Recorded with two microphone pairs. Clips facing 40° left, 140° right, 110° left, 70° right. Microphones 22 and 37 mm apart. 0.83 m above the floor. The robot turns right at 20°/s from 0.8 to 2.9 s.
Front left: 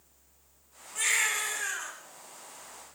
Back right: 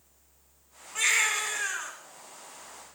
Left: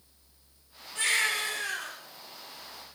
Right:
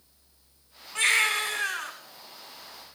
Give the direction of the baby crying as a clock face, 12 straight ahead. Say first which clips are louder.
Back right 3 dB, right 4 dB; 3 o'clock.